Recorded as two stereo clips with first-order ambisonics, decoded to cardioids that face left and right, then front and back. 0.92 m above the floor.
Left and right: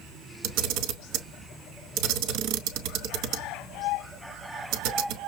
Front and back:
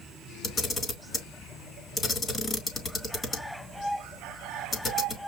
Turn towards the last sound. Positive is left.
turn(degrees=-70)